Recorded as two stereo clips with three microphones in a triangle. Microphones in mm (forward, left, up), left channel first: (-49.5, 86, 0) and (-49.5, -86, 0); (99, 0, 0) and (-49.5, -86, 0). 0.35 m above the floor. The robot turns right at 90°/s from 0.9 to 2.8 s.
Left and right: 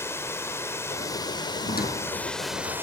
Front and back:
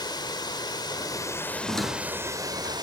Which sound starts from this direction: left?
A squeak, at 1.6 s.